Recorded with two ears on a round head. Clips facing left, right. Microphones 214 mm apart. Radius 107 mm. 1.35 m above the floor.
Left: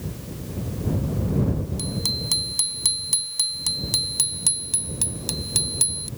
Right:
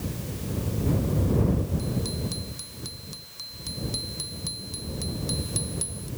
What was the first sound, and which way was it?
A bicycle bell, 85° left.